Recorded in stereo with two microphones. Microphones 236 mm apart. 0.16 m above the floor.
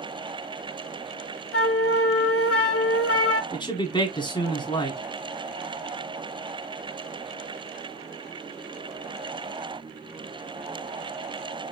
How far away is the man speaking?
About 1.2 m.